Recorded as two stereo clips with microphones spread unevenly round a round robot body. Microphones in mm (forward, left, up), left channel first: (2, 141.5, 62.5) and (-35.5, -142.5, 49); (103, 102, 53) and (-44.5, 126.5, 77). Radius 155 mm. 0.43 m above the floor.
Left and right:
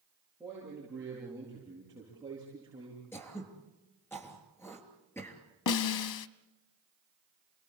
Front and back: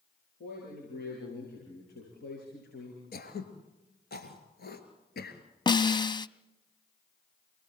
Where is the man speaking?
10° right, 10 m; by 3.0 s 20° right, 7.5 m.